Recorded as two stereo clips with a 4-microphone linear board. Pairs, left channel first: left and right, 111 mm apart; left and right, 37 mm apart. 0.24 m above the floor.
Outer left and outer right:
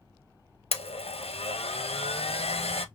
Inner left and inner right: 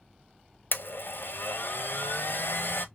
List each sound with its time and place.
0.7 s a blender: 65° left (ahead or behind), 0.7 m